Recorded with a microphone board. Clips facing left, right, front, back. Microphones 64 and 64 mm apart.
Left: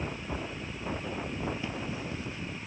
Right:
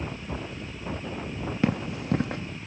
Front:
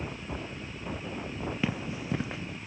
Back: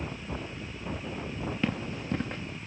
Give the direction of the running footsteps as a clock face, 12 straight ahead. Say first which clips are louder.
Right 8 dB, back 1 dB; 3 o'clock.